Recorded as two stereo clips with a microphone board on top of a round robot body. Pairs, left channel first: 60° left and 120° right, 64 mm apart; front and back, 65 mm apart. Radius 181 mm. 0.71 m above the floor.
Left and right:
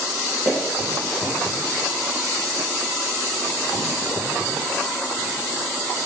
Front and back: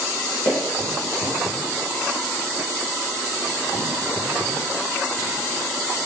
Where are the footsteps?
Straight ahead, 1.1 m.